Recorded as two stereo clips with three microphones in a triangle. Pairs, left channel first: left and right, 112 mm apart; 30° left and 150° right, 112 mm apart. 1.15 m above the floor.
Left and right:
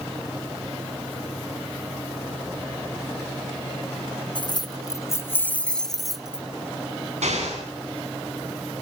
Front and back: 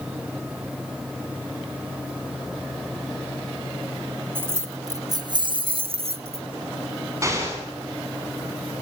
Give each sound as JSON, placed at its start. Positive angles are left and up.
{"t": 4.3, "sound": "keys jangling", "azimuth_deg": 140, "distance_m": 1.2}
{"t": 7.2, "sound": "an explosion", "azimuth_deg": -90, "distance_m": 8.5}